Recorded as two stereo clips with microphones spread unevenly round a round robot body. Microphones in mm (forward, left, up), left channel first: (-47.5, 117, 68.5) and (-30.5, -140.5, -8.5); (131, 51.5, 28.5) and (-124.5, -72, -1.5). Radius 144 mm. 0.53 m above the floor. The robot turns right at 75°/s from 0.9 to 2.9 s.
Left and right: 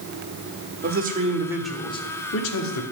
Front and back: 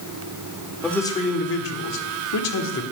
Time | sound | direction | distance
0.8 | a man speaking | 65° right | 1.7 m